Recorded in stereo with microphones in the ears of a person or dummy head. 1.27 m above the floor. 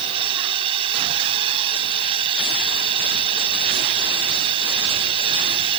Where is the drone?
30° right (ahead or behind).